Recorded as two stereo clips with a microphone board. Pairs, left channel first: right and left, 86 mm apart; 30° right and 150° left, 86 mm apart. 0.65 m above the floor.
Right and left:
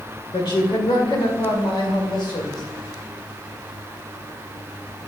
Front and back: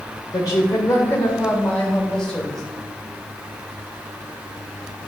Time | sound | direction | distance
0.3 | a woman speaking | 75° right | 2.0 m